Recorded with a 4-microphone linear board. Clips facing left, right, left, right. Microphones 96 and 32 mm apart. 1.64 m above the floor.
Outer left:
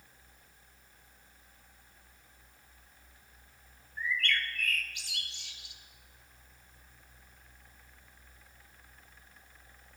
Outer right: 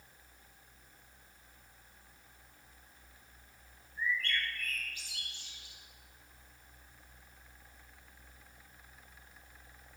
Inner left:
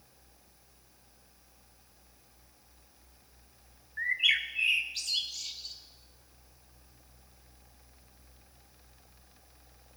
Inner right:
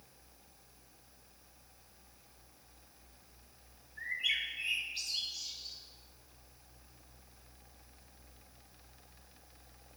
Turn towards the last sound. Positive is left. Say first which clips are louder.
# outer left 2 dB, inner left 7 dB
turn(degrees=75)  # may be behind; listen again after turning